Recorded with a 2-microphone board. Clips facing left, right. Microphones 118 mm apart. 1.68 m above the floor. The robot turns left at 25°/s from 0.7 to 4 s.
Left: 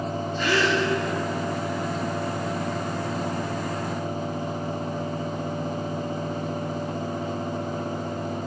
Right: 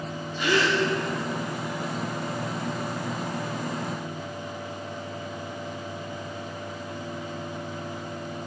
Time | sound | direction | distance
0.4 | a gasp | 10° right (ahead or behind) | 1.8 m